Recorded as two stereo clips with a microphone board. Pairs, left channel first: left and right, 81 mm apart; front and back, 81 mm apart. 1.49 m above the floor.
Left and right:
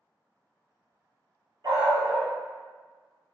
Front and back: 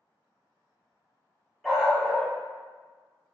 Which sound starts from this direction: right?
A dog barking, at 1.6 s.